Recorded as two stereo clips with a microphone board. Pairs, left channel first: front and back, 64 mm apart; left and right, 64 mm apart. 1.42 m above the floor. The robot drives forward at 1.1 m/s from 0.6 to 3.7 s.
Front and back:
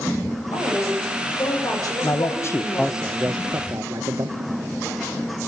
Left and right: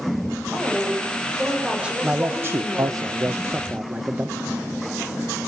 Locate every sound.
0.5 s a woman speaking: 15° right, 7 m; by 3.0 s 25° right, 4.5 m
2.0 s a man speaking: 25° right, 1.1 m; by 4.6 s 155° right, 1.0 m